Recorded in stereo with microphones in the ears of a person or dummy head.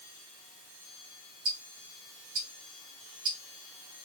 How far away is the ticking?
About 1.8 m.